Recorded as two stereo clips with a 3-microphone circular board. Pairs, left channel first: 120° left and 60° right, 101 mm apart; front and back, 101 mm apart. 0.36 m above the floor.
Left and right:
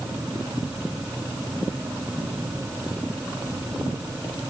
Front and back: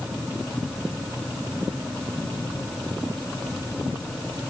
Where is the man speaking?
No man speaking in this recording.